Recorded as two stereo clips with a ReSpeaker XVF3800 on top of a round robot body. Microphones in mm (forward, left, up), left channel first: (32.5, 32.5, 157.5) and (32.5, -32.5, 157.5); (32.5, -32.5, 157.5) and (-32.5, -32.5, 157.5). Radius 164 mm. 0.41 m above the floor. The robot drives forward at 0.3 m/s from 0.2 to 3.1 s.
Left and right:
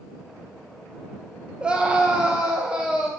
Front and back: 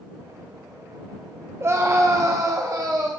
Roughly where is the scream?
Behind right.